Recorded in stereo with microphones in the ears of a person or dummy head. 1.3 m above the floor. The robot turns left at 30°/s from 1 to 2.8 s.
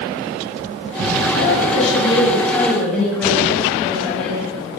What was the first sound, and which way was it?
A woman speaking, 55° left.